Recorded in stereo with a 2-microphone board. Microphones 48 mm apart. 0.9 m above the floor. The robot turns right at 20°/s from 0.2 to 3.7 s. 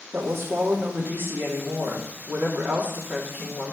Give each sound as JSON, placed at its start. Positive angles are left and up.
{"t": 0.1, "sound": "a woman speaking", "azimuth_deg": -90, "distance_m": 2.5}